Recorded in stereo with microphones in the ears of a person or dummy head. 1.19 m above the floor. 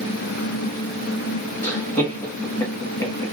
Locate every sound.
1.6 s laughter: 10° left (ahead or behind), 0.5 m